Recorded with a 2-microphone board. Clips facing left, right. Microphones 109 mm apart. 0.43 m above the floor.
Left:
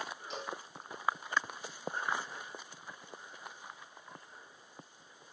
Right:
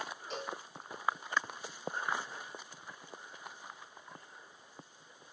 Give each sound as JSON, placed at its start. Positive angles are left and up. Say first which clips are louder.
{"t": 0.3, "sound": "a cowbell", "louder": "right 2 dB", "side_deg": -40, "distance_m": 7.0}